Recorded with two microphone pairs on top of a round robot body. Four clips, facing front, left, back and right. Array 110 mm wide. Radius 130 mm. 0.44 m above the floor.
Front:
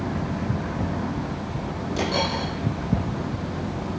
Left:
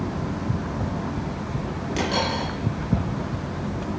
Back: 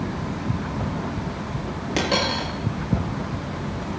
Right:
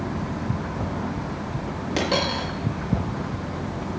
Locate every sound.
2.0 s a dropped coin: 140° right, 6.5 m